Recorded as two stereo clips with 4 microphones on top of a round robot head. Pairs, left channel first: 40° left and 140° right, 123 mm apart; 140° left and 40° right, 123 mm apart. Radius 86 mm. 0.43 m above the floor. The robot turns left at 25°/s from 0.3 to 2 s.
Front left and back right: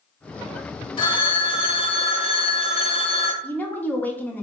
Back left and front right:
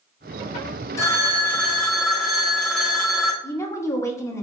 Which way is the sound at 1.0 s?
80° left.